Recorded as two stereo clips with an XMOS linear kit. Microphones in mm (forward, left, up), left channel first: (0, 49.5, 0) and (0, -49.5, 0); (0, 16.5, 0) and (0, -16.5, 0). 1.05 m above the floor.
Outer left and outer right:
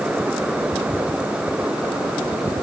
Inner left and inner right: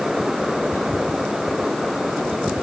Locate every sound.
Only background noise.